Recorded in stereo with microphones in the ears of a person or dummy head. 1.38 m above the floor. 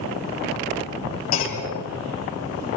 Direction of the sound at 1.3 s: 45° left (ahead or behind).